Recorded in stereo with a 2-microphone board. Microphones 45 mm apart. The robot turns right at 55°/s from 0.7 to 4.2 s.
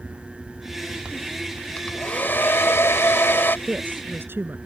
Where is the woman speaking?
30° right (ahead or behind); by 4.6 s 60° right (ahead or behind).